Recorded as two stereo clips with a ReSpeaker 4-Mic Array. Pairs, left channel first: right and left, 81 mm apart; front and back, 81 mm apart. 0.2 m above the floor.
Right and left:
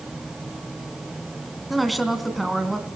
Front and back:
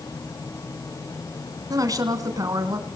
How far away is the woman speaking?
About 2 m.